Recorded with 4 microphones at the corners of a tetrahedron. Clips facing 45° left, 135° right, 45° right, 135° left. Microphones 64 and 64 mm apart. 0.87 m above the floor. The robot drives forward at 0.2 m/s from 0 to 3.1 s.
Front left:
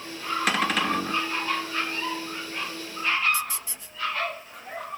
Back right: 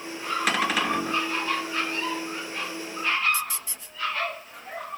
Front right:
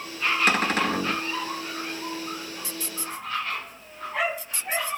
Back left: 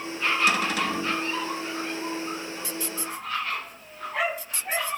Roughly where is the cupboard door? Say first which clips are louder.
Even, front right 2 dB; ahead right.